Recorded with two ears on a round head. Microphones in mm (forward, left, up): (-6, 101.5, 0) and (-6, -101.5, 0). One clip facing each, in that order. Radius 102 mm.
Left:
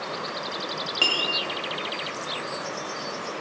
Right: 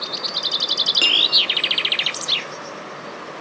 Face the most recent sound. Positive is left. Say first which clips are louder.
# right 1 dB
turn(degrees=-20)  # may be behind; listen again after turning